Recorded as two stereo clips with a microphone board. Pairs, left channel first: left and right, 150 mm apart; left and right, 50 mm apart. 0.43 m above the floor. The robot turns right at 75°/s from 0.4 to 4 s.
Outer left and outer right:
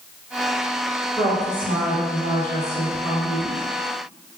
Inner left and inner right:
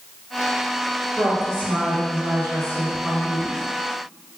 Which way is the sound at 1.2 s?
10° right.